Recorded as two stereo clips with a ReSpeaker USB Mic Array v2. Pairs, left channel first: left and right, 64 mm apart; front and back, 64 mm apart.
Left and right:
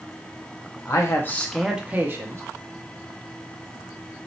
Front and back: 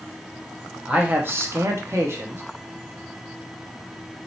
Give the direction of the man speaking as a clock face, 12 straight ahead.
8 o'clock.